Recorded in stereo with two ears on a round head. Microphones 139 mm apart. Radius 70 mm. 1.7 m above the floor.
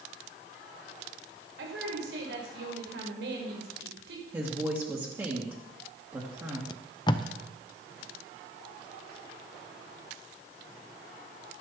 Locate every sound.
1.6 s a woman speaking: 80° right, 5.5 m
4.3 s a woman speaking: 15° right (ahead or behind), 2.5 m
6.7 s tape being pulled: 30° left (ahead or behind), 0.7 m